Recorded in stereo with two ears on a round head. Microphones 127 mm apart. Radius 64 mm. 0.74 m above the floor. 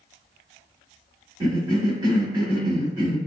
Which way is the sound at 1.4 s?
25° right (ahead or behind).